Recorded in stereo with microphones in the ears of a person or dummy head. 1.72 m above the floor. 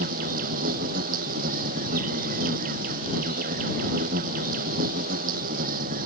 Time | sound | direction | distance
0.0 | an insect | 55° right (ahead or behind) | ?